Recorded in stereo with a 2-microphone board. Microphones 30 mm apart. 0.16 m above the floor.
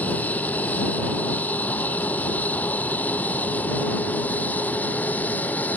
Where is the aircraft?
65° left (ahead or behind); by 5.8 s 70° left (ahead or behind).